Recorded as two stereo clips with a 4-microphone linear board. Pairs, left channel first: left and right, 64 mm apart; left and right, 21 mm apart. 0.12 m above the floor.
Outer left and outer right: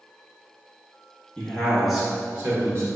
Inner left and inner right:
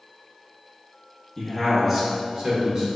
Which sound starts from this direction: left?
A man speaking, at 1.4 s.